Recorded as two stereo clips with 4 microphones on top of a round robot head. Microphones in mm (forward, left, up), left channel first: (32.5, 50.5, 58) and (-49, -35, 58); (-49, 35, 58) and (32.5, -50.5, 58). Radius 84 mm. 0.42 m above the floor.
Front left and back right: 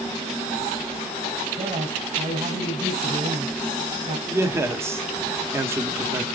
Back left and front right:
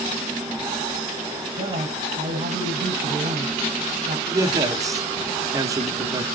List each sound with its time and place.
1.5 s a man speaking: 90° right, 3 m
4.3 s a man speaking: 80° right, 0.9 m